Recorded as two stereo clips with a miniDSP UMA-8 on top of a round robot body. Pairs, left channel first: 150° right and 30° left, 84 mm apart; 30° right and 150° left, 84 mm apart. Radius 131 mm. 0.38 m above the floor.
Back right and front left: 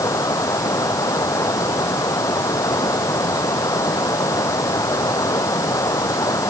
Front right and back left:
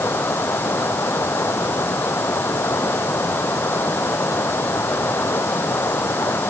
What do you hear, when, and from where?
0.0 s running water: 95° right